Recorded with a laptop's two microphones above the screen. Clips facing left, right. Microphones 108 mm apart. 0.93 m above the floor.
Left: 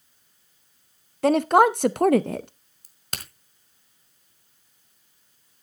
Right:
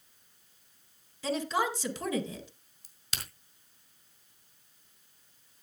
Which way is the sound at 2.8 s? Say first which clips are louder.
Left 5 dB; 55° left (ahead or behind).